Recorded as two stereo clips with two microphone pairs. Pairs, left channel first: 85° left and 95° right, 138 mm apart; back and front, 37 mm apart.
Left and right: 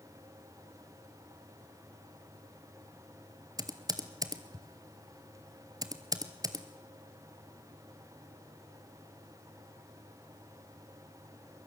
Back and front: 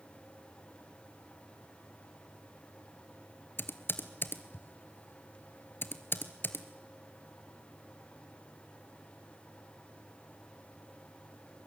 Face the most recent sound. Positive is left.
turn(degrees=-160)